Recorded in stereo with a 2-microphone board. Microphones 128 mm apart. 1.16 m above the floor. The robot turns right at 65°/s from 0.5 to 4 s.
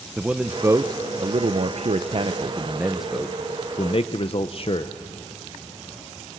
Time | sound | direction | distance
0.2 | a man speaking | 10° right (ahead or behind) | 0.6 m